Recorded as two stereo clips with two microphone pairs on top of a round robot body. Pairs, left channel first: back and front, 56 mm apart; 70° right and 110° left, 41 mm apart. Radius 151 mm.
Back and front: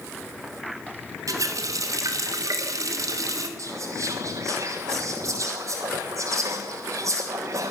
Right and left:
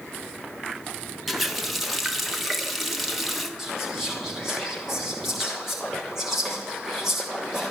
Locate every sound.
1.3 s a running tap: 30° left, 1.4 m
3.6 s whispering: 25° left, 1.2 m